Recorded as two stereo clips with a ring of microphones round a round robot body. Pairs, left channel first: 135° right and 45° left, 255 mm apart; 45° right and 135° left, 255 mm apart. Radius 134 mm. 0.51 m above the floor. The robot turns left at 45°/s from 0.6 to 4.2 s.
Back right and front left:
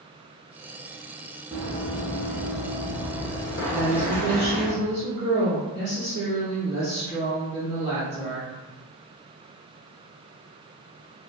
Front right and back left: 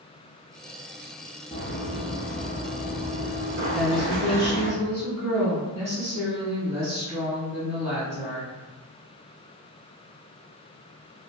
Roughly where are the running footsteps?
Ahead.